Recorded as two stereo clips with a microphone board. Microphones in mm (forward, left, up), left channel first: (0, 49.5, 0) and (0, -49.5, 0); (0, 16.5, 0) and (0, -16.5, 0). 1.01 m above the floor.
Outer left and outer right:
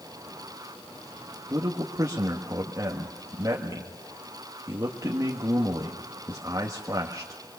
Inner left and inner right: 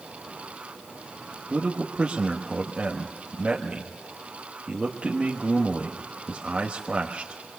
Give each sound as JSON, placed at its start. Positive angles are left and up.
{"t": 1.5, "sound": "a man speaking", "side_deg": -35, "distance_m": 1.4}